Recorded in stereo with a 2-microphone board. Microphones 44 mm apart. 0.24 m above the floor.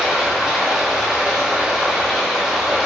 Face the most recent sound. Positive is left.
turn(degrees=-5)  # may be behind; listen again after turning